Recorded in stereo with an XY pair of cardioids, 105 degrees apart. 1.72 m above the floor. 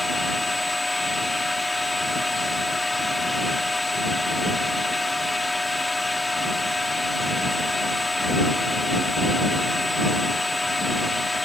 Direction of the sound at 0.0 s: 15° left.